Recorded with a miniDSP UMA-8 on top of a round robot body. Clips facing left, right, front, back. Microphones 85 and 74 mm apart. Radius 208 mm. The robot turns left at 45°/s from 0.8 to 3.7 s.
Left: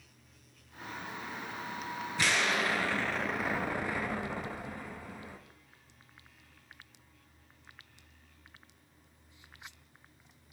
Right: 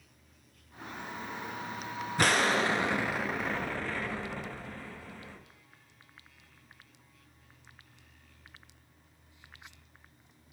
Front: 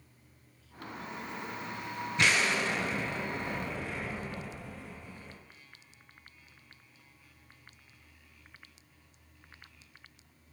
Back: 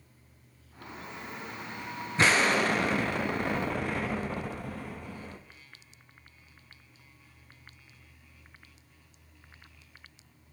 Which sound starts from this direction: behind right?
An explosion, at 2.2 s.